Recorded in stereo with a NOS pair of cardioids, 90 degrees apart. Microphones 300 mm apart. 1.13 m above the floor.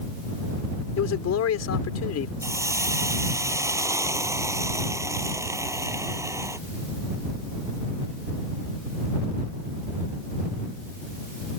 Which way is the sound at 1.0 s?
60° left.